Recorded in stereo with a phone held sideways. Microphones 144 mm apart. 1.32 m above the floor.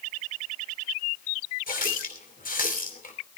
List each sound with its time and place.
1.7 s a running tap: 75° left (ahead or behind), 3 m